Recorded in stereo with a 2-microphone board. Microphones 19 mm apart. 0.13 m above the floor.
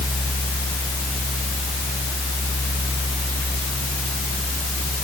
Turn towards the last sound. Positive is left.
No sound to turn to.